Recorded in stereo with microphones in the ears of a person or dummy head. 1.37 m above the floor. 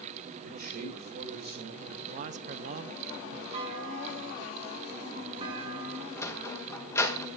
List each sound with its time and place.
0.4 s a man speaking: 55° right (ahead or behind), 4 m
2.0 s a man speaking: 45° right (ahead or behind), 0.6 m
3.5 s a clunk: 30° right (ahead or behind), 6.5 m
6.2 s a sliding door: 15° left (ahead or behind), 1.6 m